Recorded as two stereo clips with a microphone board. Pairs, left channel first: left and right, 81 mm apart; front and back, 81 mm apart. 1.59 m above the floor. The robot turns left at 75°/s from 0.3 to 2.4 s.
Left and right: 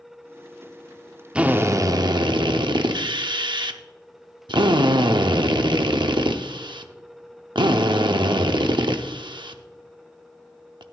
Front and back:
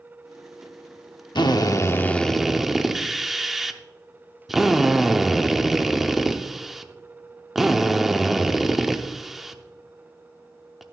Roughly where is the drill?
Ahead.